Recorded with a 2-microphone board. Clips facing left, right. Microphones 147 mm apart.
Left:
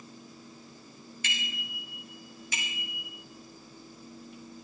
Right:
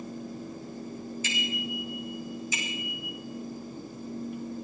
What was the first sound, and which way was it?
A bicycle bell, 65° left (ahead or behind).